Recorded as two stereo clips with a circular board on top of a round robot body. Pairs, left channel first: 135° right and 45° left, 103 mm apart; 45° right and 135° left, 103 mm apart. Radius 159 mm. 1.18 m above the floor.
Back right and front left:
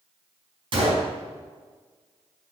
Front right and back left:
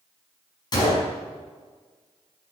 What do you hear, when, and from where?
0.7 s a gunshot: 5° left, 5 m